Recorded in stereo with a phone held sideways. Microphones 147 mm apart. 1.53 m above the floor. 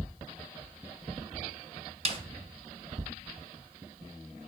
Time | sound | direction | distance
2.0 | a snare drum | 40° right (ahead or behind) | 2 m